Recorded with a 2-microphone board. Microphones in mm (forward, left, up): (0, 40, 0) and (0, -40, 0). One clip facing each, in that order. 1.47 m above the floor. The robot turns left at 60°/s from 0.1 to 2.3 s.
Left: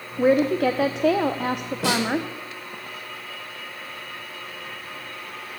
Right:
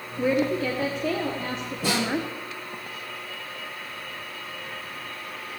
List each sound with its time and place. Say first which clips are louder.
0.2 s a woman speaking: left 5 dB; 145° left, 0.8 m; by 2.3 s 20° left, 0.8 m
1.8 s a snare drum: left 3 dB; 85° left, 5.5 m; by 2.0 s 75° left (ahead or behind), 5.5 m